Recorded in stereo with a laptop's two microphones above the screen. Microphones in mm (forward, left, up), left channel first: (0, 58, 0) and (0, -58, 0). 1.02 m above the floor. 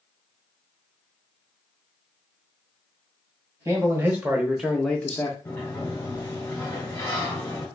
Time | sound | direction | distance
3.6 | a man speaking | 25° right (ahead or behind) | 1.0 m
5.5 | a sliding door | 25° left (ahead or behind) | 1.3 m